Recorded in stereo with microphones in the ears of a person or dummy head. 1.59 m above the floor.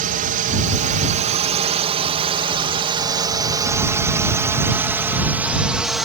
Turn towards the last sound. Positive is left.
turn(degrees=-5)  # may be behind; listen again after turning